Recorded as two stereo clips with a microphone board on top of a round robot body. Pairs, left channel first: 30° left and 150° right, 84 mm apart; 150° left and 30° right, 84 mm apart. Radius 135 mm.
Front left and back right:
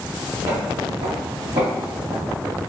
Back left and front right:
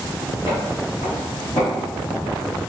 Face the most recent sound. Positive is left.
turn(degrees=-135)